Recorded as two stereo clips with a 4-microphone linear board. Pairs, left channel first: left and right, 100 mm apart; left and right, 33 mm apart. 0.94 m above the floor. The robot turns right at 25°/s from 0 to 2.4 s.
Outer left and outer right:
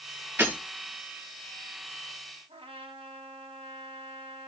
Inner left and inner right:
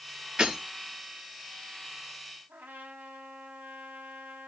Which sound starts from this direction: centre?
Breaking glass, at 0.4 s.